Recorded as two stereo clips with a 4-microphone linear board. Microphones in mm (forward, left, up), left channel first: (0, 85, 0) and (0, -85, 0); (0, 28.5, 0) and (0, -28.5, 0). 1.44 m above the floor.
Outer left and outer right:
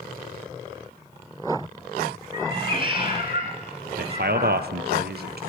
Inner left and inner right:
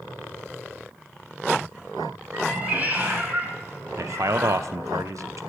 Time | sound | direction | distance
2.3 | a cat meowing | 30° right (ahead or behind) | 2 m
4.0 | a man speaking | 70° right (ahead or behind) | 0.6 m